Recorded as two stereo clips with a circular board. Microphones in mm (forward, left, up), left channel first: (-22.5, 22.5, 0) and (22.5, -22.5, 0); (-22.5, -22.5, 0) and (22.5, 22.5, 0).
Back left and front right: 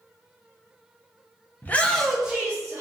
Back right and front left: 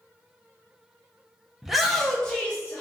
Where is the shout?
125° left, 0.6 m; by 2.8 s 75° right, 0.7 m.